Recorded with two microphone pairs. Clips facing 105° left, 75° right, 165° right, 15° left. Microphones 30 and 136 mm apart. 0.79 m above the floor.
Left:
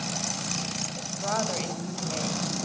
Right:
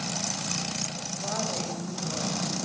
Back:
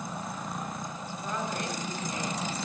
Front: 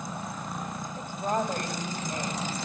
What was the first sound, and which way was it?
A woman speaking, 50° left.